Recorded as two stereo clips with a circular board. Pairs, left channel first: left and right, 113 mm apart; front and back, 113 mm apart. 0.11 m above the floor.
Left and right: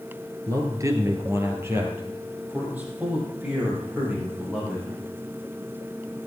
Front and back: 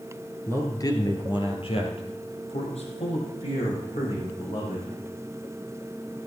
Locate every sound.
0.5 s a man speaking: 55° right, 1.9 m; by 5.0 s 10° right, 7.5 m